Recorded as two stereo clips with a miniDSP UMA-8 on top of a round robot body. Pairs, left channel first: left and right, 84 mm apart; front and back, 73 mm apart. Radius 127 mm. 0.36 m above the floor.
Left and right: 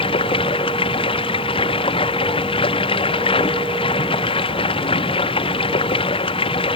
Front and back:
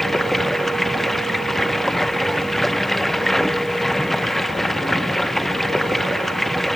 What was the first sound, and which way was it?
Running water, 90° left.